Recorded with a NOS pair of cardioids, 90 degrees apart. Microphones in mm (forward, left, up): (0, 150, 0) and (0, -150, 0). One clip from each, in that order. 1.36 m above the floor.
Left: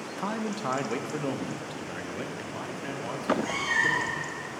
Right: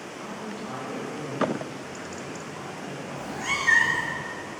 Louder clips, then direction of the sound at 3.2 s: Even; 65° right.